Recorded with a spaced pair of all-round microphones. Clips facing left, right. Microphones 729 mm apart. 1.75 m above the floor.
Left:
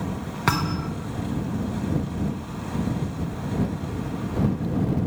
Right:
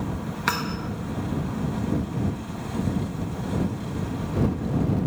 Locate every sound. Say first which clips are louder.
0.5 s a thud: left 5 dB; 70° left (ahead or behind)